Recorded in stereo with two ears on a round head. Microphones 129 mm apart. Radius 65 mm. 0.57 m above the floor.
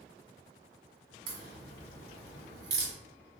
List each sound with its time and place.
1.3 s a crack: 80° right, 1.7 m